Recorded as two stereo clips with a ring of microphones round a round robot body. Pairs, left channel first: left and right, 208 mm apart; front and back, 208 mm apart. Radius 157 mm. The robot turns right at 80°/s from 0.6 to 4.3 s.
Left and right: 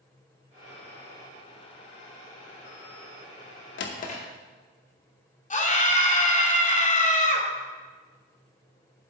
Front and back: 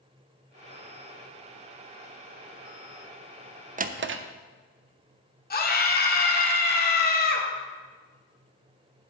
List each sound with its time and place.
3.8 s a drawer: 125° left, 0.6 m; by 4.2 s 160° left, 0.6 m
5.5 s a scream: 40° left, 1.8 m